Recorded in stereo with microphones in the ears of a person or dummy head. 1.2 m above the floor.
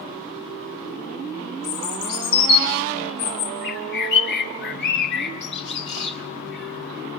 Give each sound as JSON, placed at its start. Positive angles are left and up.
{"t": 1.6, "sound": "a bird", "side_deg": 85, "distance_m": 6.0}
{"t": 3.6, "sound": "a bird", "side_deg": 65, "distance_m": 3.5}